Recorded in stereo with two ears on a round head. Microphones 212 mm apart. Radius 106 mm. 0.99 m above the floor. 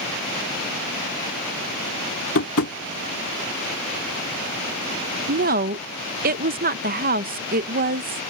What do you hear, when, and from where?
2.4 s tapping: 65° left (ahead or behind)
5.3 s a woman speaking: 35° right (ahead or behind)